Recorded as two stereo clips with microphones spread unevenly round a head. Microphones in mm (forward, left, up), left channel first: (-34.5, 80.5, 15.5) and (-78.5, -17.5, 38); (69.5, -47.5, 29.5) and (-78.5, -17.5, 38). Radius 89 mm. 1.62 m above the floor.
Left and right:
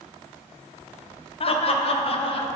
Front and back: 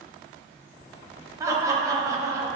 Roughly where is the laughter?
Left.